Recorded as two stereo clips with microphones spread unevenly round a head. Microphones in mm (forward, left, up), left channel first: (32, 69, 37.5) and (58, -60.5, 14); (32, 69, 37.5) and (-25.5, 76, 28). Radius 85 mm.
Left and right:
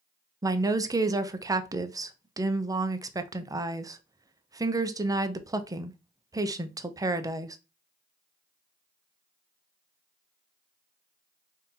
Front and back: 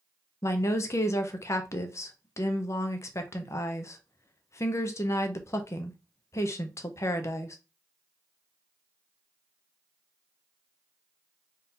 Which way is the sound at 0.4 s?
35° right.